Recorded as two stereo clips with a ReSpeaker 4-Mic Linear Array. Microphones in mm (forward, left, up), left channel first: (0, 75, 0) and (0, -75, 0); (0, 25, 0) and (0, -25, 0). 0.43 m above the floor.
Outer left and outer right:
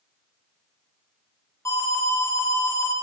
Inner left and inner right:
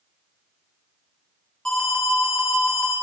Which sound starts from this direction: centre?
An alarm, at 1.6 s.